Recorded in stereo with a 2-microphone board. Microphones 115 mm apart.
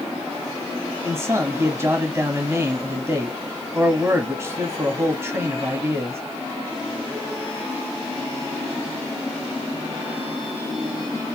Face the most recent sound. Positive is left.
turn(degrees=-25)  # may be behind; listen again after turning